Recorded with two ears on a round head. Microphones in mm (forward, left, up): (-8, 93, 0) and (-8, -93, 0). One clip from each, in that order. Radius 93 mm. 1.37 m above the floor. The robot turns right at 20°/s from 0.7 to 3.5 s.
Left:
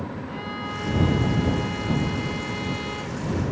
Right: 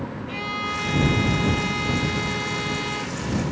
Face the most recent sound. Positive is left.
turn(degrees=-15)